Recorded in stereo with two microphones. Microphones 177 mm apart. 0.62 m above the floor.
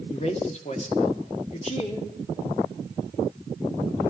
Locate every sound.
0.1 s a man speaking: 35° left (ahead or behind), 1.4 m